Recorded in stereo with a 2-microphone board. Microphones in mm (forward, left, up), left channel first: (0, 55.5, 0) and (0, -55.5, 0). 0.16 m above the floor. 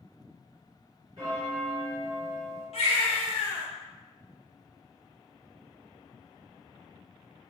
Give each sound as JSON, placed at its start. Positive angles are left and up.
{"t": 1.2, "sound": "a bell", "side_deg": -35, "distance_m": 1.9}
{"t": 2.7, "sound": "a baby crying", "side_deg": 65, "distance_m": 1.9}